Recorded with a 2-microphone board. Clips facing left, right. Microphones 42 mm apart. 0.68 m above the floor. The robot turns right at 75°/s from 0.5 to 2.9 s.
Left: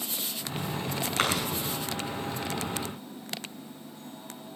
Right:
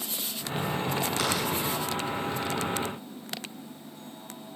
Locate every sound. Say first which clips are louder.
1.2 s chewing: left 5 dB; 40° left (ahead or behind), 7 m; by 1.5 s 65° left (ahead or behind), 7 m